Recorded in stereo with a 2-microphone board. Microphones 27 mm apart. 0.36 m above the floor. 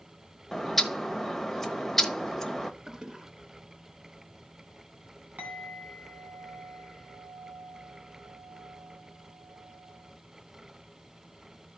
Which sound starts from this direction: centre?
A bird, at 0.5 s.